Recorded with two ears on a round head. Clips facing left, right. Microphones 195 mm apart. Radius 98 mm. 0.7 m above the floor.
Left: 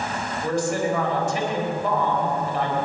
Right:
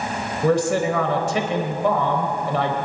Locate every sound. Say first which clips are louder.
0.4 s a man speaking: right 5 dB; 60° right (ahead or behind), 3.5 m